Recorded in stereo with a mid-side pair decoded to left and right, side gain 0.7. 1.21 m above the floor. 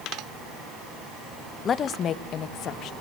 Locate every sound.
1.6 s a woman speaking: 35° left, 1.1 m; by 2.9 s 50° left, 1.9 m